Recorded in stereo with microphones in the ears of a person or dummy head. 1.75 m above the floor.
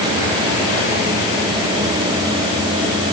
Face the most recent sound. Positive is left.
No sound to turn to.